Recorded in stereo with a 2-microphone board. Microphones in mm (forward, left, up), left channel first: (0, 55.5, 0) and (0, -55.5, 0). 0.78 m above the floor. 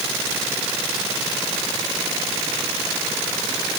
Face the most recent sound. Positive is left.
No sound to turn to.